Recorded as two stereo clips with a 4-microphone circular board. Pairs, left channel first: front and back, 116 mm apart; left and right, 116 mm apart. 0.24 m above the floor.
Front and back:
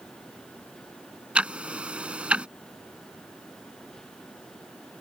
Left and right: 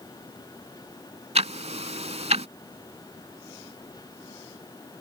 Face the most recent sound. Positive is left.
turn(degrees=-100)